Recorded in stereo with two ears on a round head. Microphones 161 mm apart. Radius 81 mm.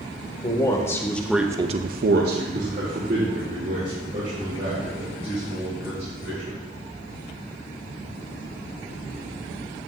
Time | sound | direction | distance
0.4 | a man speaking | 25° left (ahead or behind) | 1.9 m